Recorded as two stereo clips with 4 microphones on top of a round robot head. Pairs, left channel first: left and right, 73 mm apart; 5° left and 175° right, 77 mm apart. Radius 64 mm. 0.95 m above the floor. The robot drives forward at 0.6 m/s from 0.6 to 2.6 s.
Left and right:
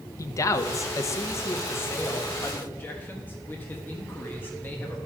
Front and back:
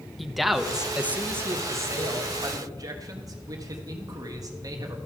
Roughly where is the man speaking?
Left.